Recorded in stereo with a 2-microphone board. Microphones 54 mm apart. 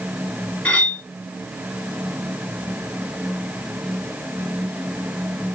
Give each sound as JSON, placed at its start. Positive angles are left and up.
{"t": 0.7, "sound": "cutlery clinking", "side_deg": 25, "distance_m": 1.1}